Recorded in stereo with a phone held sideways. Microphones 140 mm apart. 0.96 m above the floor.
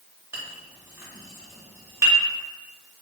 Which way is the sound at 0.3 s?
20° right (ahead or behind).